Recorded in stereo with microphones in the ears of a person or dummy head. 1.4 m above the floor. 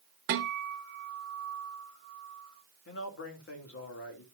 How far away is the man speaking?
About 3 m.